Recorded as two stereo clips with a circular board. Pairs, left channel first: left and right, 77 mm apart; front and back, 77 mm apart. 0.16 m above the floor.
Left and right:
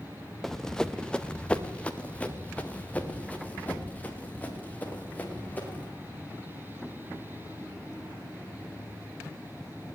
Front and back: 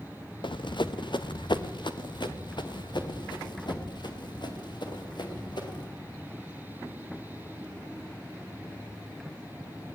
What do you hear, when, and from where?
0.4 s running footsteps: 5° left, 1.2 m; by 5.9 s 20° left, 6.5 m